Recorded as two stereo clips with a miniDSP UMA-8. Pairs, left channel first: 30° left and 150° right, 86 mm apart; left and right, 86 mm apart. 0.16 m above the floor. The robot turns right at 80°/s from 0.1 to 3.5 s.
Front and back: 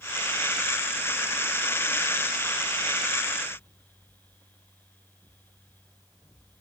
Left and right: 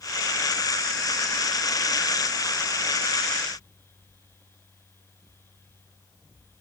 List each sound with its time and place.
Only background noise.